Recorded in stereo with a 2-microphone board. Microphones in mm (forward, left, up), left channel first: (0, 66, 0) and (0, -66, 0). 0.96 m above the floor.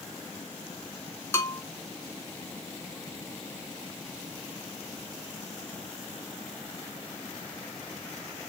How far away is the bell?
About 0.6 m.